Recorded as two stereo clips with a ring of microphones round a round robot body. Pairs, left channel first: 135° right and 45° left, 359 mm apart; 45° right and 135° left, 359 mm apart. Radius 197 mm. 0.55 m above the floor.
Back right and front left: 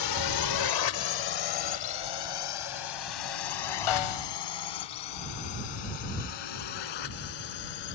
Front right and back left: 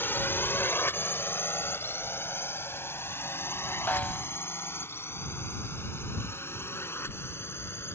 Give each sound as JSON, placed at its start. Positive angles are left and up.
{"t": 0.0, "sound": "a drone", "azimuth_deg": -130}
{"t": 3.9, "sound": "a snare drum", "azimuth_deg": -130}